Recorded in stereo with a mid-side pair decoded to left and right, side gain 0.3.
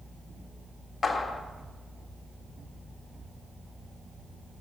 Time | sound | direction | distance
1.0 | a clap | 50° left | 1.7 m